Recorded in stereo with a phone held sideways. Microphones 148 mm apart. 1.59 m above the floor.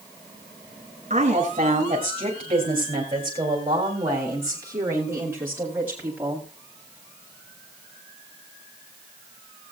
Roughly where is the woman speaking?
Right.